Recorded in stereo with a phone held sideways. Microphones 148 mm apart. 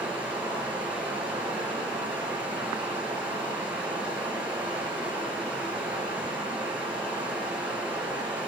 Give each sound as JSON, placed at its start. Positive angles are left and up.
{"t": 0.0, "sound": "running water", "side_deg": -10, "distance_m": 3.5}